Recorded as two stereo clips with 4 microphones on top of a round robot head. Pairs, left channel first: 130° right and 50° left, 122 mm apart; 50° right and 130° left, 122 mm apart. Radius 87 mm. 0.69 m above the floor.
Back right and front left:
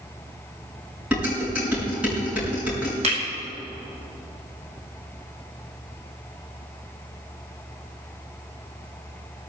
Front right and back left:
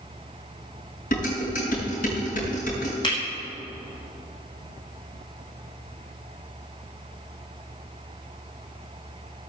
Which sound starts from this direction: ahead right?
Dishes clattering, at 1.1 s.